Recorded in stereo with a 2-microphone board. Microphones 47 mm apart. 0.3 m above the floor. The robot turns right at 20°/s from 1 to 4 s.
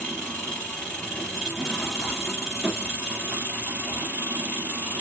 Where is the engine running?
160° left, 1.6 m; by 5.0 s 140° right, 1.6 m.